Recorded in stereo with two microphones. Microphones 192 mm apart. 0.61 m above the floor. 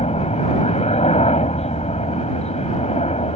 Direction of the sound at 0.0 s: 35° left (ahead or behind).